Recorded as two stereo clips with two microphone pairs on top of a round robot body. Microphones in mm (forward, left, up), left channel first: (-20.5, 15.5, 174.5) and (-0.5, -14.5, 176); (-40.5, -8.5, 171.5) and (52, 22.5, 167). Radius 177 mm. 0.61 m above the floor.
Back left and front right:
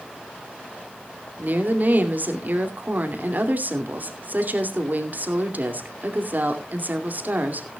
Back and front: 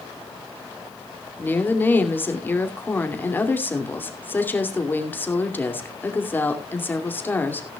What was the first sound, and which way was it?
A woman speaking, 90° right.